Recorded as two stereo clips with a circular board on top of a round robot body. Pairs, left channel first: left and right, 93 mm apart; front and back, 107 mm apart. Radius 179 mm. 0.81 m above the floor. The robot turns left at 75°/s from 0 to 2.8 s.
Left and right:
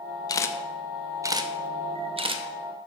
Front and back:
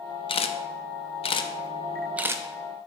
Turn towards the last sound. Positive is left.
turn(degrees=-150)